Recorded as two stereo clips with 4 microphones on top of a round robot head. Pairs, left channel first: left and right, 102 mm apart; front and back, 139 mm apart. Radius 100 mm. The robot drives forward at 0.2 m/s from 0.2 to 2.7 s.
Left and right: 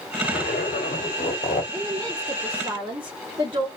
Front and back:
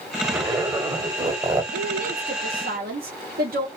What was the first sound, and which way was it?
A zipper, 110° left.